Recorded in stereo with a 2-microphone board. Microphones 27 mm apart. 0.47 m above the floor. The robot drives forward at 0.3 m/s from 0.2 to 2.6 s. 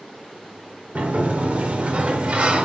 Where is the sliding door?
60° right (ahead or behind), 0.6 m; by 2.6 s 45° right (ahead or behind), 0.8 m.